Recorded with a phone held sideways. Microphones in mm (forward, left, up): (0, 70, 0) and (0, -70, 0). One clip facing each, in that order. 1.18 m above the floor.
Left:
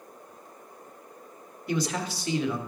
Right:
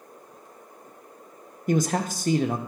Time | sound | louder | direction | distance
1.7 | a man speaking | right 5 dB | 45° right (ahead or behind) | 0.6 m